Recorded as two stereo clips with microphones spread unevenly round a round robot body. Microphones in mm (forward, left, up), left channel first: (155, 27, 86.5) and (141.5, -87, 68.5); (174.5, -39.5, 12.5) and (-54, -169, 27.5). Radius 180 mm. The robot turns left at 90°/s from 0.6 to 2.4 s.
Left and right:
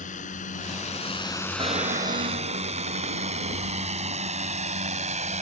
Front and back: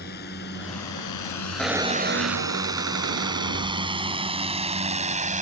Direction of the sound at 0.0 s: 95° left.